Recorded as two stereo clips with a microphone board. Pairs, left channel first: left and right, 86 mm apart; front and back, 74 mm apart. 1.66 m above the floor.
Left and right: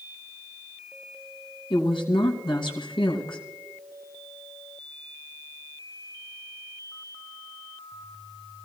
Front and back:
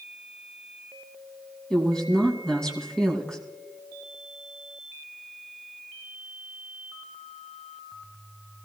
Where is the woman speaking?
80° left, 2.5 m.